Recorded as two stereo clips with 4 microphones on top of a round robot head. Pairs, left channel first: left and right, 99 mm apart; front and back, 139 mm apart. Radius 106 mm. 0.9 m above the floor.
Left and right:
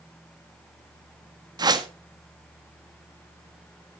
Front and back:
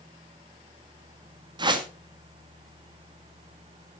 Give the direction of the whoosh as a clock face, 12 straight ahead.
4 o'clock.